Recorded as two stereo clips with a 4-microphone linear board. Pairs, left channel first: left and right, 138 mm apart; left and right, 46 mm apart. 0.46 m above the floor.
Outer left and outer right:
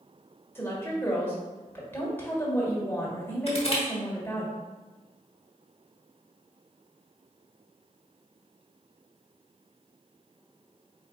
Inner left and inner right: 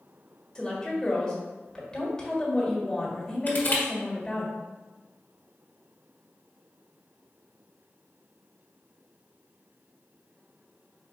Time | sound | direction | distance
0.6 | a woman speaking | 15° left (ahead or behind) | 1.3 m
3.5 | crushing | 45° left (ahead or behind) | 1.2 m